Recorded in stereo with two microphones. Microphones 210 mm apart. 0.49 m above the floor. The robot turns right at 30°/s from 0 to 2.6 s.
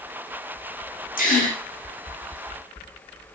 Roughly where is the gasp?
Left.